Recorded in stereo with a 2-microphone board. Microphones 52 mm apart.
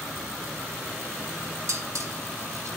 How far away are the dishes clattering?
About 2.5 m.